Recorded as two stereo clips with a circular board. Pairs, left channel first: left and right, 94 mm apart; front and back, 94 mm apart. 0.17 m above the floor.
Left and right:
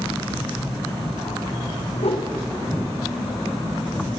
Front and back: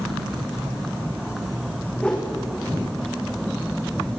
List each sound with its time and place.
2.0 s a whoosh: 80° left, 3 m